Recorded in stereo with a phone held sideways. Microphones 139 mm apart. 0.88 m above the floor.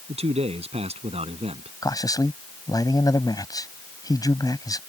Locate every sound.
0.1 s a man speaking: 50° right (ahead or behind)
1.8 s a man speaking: 25° left (ahead or behind)